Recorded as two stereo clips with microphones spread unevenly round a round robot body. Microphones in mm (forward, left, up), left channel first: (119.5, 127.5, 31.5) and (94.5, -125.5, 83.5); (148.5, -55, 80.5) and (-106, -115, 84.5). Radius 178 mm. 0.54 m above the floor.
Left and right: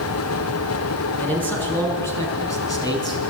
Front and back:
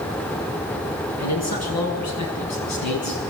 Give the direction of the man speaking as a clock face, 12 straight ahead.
12 o'clock.